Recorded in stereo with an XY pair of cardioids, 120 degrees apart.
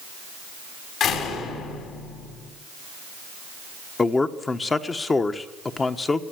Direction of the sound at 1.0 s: 70° left.